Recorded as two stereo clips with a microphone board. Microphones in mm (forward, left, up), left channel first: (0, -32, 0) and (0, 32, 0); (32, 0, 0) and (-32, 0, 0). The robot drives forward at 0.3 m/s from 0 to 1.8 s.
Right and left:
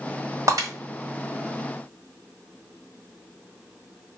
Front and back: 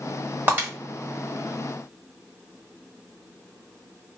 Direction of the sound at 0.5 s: 120° left.